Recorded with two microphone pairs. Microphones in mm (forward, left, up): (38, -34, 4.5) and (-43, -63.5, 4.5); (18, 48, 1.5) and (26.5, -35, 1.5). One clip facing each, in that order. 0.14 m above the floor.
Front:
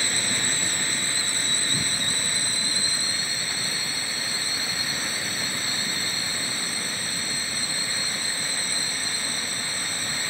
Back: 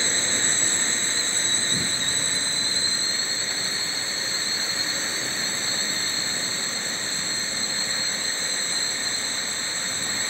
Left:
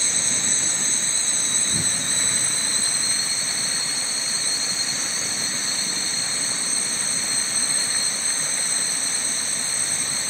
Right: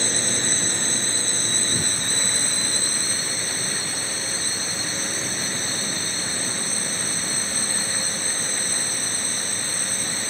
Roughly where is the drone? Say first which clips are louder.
Back 1 dB, right 5 dB; right.